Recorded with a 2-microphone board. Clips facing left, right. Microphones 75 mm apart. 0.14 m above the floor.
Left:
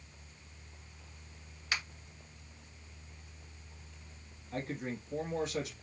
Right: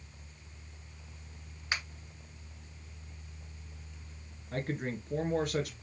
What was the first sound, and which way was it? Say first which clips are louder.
A finger snap: right 1 dB; 25° right (ahead or behind).